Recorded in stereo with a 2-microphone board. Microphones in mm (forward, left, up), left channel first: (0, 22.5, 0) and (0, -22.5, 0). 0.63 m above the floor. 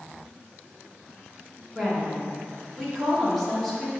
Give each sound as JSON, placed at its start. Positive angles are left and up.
{"t": 1.8, "sound": "a woman speaking", "side_deg": 5, "distance_m": 1.5}